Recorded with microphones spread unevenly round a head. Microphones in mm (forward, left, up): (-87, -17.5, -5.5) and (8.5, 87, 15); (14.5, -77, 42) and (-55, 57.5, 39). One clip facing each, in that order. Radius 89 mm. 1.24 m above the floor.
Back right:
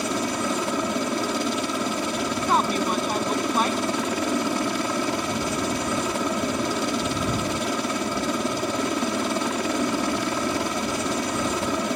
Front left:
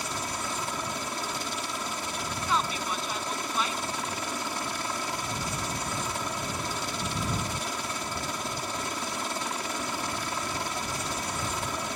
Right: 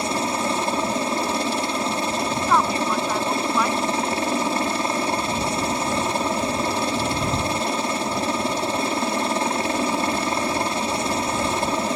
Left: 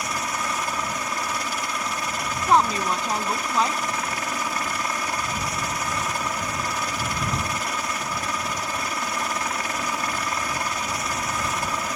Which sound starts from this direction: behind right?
A helicopter, at 0.0 s.